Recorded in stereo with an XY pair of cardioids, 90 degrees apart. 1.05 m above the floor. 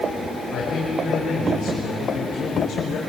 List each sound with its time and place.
0.5 s a man speaking: 70° left, 4.5 m